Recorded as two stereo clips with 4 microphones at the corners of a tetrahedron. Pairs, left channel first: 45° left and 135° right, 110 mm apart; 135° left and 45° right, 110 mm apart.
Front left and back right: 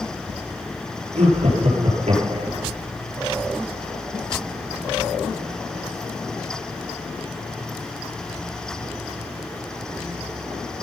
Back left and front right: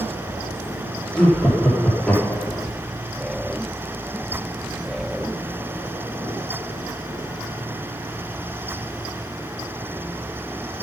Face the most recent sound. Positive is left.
turn(degrees=-145)